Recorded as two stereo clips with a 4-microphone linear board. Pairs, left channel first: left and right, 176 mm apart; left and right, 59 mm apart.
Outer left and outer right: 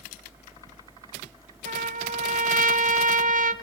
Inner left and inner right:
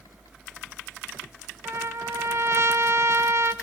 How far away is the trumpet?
About 0.9 m.